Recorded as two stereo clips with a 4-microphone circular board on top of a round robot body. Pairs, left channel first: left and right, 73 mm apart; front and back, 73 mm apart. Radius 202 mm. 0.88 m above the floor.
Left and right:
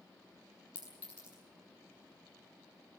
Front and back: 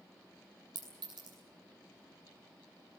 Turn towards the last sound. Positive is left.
turn(degrees=165)